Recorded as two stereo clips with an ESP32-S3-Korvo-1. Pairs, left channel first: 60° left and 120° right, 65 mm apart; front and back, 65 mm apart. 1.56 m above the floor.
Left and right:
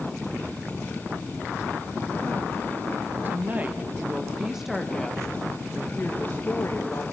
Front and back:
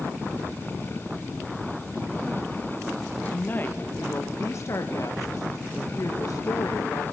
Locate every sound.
3.2 s a woman speaking: 65° right, 1.8 m; by 7.0 s 15° left, 1.9 m